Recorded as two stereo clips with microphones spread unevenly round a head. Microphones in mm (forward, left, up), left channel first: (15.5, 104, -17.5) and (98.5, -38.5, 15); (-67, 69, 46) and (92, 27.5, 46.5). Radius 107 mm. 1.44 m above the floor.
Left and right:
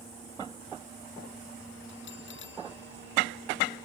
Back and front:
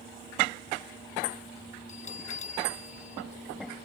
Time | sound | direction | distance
1.9 | a bell | 120° left | ?